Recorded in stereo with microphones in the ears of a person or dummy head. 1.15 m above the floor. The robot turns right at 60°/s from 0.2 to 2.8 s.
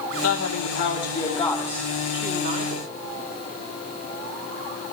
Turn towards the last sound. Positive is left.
turn(degrees=-125)